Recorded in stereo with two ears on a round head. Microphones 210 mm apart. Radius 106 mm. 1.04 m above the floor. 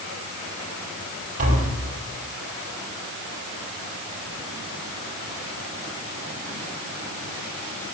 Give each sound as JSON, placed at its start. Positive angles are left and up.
{"t": 1.4, "sound": "tapping", "side_deg": -40, "distance_m": 5.0}